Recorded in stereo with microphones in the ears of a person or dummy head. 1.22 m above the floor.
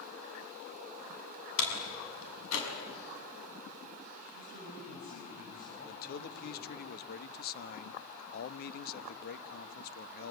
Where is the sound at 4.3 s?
45° left (ahead or behind), 7 m.